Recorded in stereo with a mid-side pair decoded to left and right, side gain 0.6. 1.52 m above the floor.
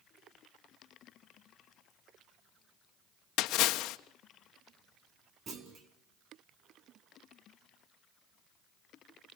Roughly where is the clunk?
Ahead right.